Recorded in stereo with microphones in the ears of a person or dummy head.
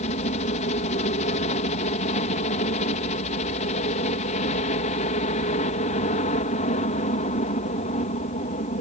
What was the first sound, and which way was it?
A helicopter, 40° left (ahead or behind).